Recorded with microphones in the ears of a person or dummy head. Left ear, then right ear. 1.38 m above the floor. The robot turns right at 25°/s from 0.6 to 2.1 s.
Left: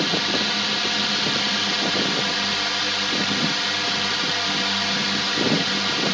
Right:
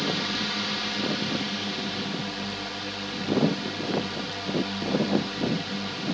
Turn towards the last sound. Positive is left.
turn(degrees=70)